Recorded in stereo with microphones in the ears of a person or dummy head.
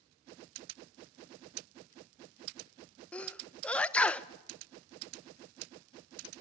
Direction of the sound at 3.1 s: 10° left (ahead or behind).